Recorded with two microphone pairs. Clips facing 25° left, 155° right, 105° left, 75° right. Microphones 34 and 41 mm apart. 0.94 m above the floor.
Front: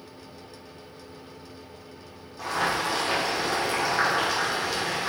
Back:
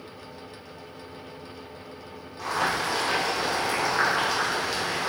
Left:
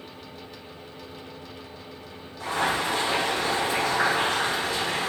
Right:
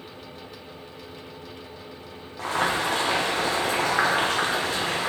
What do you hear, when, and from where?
2.4 s boiling: 65° right, 1.0 m